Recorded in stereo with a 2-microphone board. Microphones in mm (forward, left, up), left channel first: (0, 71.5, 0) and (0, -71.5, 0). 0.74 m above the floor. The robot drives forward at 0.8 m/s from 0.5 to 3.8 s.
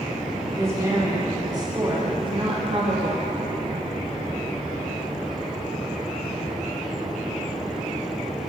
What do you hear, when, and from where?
0.6 s a woman speaking: 20° right (ahead or behind), 2.5 m; by 3.3 s 40° right (ahead or behind), 1.2 m